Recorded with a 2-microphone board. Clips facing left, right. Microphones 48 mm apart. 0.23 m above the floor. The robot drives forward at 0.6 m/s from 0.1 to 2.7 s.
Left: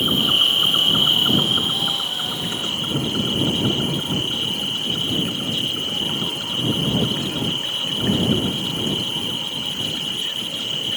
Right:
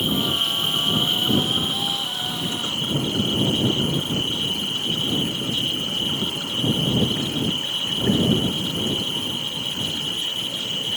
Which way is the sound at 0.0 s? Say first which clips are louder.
Left 4 dB; 55° left (ahead or behind).